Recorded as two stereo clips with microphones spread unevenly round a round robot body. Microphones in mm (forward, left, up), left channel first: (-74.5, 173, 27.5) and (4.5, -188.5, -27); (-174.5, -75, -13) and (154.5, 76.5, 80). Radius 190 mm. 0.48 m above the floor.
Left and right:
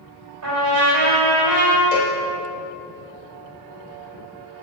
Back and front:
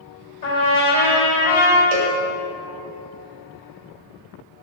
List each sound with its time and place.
0.4 s a trumpet: 105° right, 2 m
1.9 s a cowbell: 45° left, 0.9 m